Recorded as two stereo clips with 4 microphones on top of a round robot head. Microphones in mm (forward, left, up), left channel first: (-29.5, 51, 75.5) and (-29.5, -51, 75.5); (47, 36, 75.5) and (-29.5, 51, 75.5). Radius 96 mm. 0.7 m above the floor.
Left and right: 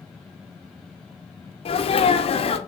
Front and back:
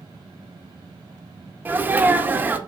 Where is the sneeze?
105° left, 1.5 m.